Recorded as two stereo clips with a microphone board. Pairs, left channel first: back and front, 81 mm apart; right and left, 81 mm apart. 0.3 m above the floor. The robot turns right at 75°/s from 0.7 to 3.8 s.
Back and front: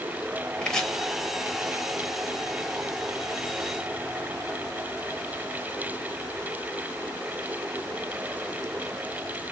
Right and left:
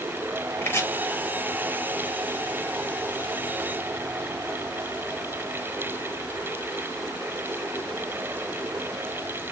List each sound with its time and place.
0.6 s chopping: 110° right, 0.6 m; by 0.9 s 100° right, 0.6 m